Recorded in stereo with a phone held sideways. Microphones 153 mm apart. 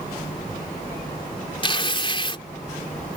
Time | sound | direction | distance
1.6 | tearing paper | 35° left (ahead or behind) | ?